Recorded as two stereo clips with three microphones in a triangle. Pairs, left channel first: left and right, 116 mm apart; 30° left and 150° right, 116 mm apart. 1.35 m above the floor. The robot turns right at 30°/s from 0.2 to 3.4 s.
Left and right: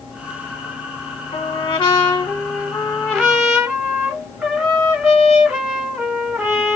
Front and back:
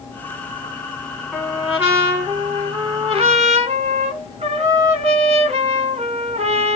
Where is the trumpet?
120° left, 3 m; by 6.8 s straight behind, 3 m.